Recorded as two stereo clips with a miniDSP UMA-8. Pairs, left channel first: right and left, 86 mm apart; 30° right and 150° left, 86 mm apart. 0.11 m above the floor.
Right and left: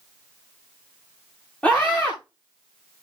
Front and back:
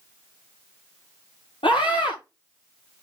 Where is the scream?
15° right, 7.5 m.